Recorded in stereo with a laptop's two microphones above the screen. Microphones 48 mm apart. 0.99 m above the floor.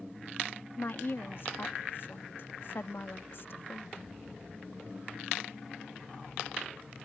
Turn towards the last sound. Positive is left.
turn(degrees=60)  # may be behind; listen again after turning